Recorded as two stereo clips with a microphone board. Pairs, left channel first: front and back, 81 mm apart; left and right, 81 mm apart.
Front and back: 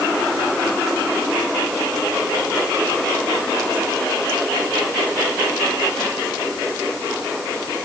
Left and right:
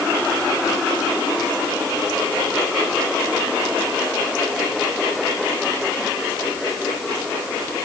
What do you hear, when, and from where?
Only background noise.